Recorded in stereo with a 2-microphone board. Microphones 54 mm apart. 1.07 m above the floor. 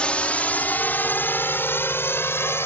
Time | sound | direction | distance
0.0 | a drone | 20° left (ahead or behind) | ?